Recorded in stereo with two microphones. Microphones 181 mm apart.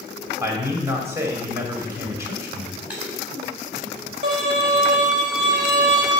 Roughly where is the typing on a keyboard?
Centre.